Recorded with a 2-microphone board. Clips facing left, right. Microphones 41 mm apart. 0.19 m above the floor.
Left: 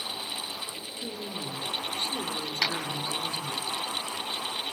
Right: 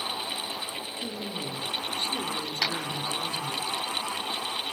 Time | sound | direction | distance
1.0 | a woman speaking | 10° right (ahead or behind) | 3 m
2.6 | a clap | centre (ahead or behind) | 3.5 m